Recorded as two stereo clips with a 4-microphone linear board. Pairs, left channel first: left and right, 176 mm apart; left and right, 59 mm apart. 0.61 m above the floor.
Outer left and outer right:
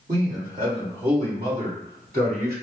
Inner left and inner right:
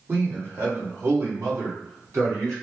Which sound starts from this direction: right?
A man speaking, at 0.1 s.